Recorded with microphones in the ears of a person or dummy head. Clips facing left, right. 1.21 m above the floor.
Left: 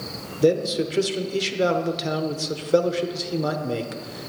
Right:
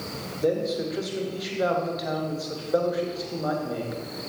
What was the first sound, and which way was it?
A man speaking, 35° left (ahead or behind).